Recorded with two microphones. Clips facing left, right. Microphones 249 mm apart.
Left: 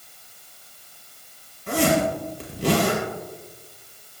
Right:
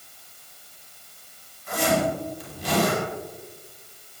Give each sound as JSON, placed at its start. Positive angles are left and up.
{"t": 1.7, "sound": "a zipper", "side_deg": 85, "distance_m": 5.5}